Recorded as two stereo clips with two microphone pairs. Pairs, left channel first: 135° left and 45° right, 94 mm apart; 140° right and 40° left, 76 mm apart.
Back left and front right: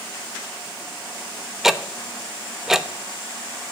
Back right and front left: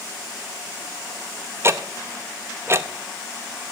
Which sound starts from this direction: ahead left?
Ticking, at 1.6 s.